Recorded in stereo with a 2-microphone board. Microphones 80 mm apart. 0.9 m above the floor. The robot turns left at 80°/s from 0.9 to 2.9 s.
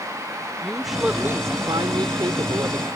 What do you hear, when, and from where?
0.6 s a woman speaking: straight ahead; by 2.9 s 160° right